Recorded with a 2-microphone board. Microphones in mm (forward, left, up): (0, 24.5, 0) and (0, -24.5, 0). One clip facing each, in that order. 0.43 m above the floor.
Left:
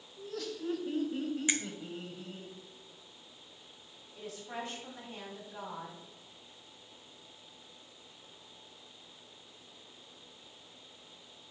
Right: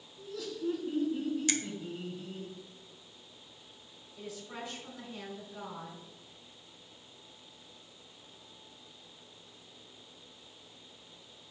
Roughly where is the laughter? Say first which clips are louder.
Right 1 dB; left.